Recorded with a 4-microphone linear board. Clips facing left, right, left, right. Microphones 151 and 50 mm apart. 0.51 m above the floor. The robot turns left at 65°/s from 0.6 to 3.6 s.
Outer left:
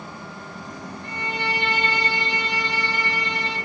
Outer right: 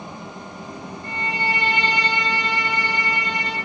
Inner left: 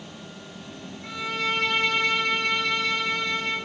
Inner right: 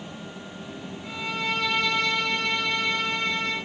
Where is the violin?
100° left, 2 m; by 3.6 s 65° right, 2 m.